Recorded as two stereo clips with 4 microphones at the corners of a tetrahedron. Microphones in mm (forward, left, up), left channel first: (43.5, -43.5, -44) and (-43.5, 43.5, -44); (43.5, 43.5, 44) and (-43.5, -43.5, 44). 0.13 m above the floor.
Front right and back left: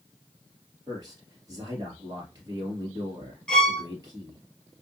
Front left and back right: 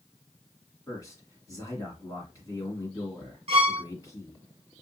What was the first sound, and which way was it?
A man speaking, 95° left.